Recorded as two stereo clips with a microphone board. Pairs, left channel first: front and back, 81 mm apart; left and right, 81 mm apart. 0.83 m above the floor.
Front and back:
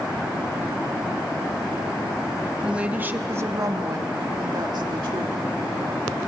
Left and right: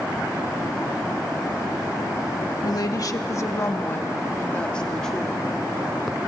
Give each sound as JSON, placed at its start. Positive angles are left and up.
{"t": 2.6, "sound": "a woman speaking", "azimuth_deg": 105, "distance_m": 1.3}